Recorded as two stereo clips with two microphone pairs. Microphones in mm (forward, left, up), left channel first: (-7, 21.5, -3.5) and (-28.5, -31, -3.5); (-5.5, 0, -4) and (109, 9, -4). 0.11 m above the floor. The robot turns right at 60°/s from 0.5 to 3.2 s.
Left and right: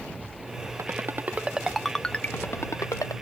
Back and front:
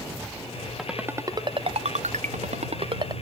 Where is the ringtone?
85° right; by 3.1 s 55° left.